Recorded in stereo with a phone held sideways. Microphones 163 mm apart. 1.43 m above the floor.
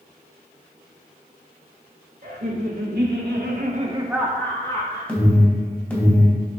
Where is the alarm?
10° left (ahead or behind), 2.5 m.